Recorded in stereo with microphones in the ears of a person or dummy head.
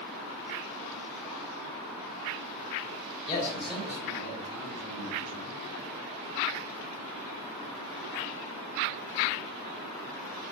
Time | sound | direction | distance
3.3 | a man speaking | 30° left (ahead or behind) | 0.8 m